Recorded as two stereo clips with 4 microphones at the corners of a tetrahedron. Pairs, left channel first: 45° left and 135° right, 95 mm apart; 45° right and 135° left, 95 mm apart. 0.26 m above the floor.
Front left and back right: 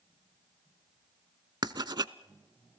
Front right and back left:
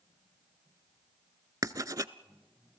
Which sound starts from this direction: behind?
Writing, at 1.6 s.